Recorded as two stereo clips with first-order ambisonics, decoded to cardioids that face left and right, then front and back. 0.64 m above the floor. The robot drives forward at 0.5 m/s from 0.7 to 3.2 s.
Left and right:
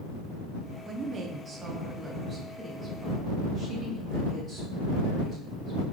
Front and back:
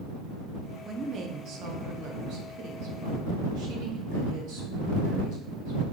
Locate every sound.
0.8 s a woman speaking: 120° right, 0.5 m; by 5.8 s 170° right, 1.4 m